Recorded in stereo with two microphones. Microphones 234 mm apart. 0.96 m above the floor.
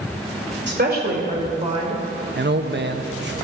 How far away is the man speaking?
About 0.9 m.